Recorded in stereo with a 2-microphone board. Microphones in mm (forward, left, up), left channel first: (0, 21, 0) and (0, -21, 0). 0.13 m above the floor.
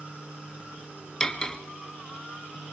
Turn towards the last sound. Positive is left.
turn(degrees=15)  # may be behind; listen again after turning